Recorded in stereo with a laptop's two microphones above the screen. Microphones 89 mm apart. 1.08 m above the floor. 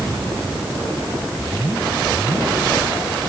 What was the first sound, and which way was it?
Only background noise.